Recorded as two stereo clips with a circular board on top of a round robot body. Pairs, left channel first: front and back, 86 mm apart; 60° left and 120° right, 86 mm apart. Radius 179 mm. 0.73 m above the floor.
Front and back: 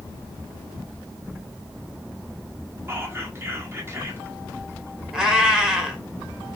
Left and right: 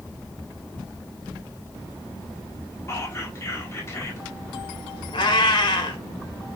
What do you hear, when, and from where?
2.9 s whispering: 120° left, 2.0 m
5.1 s a cat meowing: 95° left, 1.6 m